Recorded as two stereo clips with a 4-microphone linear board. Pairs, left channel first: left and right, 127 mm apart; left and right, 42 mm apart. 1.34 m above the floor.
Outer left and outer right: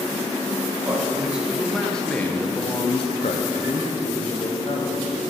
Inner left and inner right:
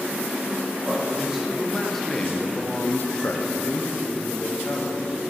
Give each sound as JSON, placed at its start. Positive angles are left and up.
{"t": 0.8, "sound": "a man speaking", "side_deg": -10, "distance_m": 1.4}